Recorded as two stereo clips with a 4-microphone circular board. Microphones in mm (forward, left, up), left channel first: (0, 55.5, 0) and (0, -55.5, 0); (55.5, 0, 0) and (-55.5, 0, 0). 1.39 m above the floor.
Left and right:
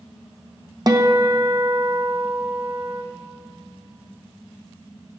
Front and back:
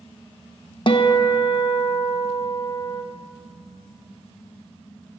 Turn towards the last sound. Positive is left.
turn(degrees=-40)